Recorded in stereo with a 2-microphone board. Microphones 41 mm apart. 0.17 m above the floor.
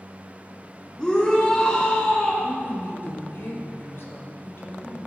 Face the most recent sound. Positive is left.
turn(degrees=65)  # may be behind; listen again after turning